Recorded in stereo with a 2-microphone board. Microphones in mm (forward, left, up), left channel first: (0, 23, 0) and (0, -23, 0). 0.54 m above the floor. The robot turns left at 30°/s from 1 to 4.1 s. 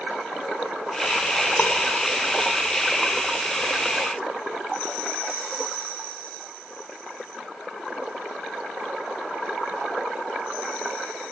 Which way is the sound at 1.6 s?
45° left (ahead or behind).